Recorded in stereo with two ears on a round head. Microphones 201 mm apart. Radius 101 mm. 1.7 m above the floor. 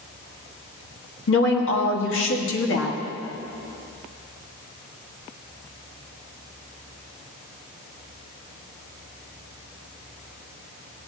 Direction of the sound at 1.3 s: 65° left (ahead or behind).